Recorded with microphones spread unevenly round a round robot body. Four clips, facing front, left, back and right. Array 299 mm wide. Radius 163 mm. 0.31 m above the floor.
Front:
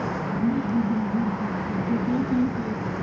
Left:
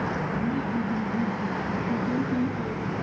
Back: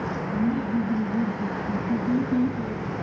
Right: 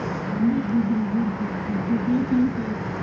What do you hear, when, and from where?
0.3 s laughter: 75° right, 4 m; by 2.8 s 65° right, 5.5 m